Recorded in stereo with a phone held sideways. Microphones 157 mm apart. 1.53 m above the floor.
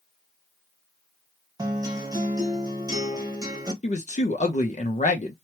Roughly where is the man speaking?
Left.